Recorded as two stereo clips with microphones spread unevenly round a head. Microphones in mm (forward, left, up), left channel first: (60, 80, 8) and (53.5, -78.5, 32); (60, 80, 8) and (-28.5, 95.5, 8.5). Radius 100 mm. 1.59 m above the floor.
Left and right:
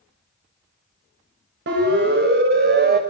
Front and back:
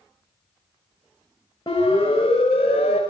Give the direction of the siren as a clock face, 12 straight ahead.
3 o'clock.